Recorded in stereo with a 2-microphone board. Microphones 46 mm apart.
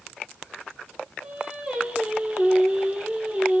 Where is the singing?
20° right (ahead or behind), 1.9 m.